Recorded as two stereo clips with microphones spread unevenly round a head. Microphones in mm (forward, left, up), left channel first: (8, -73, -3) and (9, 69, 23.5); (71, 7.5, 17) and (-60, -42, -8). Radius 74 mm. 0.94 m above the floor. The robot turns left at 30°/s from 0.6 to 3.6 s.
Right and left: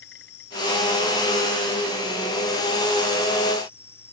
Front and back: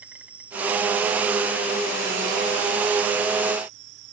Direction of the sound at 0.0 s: 75° right.